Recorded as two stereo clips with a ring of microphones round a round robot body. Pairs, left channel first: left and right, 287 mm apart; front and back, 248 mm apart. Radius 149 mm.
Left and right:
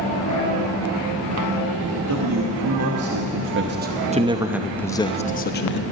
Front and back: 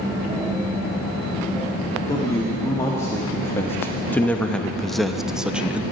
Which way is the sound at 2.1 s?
80° right.